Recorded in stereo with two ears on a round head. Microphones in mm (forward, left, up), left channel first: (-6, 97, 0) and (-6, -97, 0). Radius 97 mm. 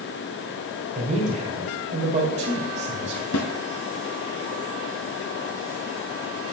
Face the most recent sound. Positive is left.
turn(degrees=70)  # may be behind; listen again after turning